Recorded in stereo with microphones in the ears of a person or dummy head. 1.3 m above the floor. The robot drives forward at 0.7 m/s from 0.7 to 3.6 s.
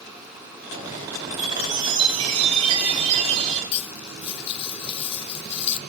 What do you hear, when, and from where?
1.3 s a chime: 25° right (ahead or behind), 8.5 m; by 3.6 s 35° right (ahead or behind), 7 m
3.7 s cutlery clinking: 35° left (ahead or behind), 0.8 m